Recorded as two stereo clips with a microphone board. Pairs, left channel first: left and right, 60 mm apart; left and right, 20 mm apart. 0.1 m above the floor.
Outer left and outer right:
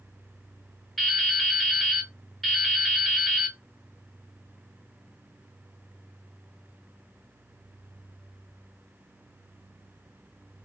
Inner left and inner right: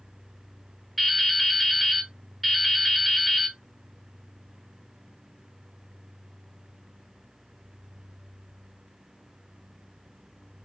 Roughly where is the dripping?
Centre.